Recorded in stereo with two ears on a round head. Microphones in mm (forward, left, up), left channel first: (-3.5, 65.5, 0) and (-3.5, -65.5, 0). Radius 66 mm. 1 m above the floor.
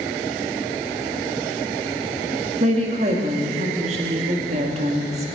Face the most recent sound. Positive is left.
turn(degrees=-45)  # may be behind; listen again after turning